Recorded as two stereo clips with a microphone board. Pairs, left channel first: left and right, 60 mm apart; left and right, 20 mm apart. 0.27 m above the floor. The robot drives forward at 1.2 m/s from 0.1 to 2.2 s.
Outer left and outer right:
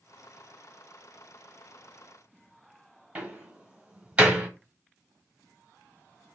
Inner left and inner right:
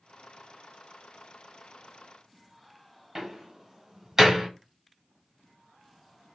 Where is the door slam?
20° right (ahead or behind), 1.1 m.